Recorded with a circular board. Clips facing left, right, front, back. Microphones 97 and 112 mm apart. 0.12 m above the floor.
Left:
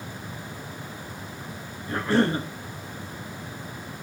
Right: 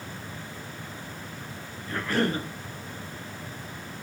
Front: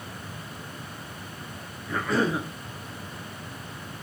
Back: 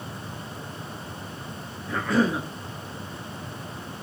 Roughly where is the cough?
Left.